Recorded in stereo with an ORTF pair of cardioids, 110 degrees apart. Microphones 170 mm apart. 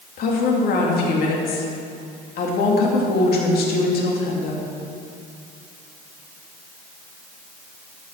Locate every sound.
0.2 s a woman speaking: 65° left, 2.5 m